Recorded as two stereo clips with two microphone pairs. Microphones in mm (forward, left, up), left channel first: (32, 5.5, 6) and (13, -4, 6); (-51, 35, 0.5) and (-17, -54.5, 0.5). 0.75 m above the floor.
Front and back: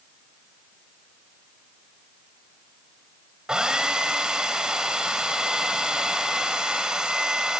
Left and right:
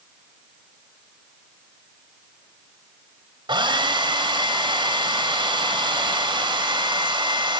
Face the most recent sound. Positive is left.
turn(degrees=-105)